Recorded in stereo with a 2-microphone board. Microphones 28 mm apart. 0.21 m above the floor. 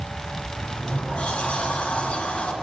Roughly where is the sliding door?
Left.